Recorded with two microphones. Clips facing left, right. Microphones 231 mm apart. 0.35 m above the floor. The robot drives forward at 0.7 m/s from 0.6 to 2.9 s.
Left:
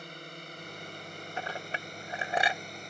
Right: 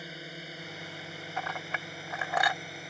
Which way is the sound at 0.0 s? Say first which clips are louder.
Right 2 dB; 5° right (ahead or behind).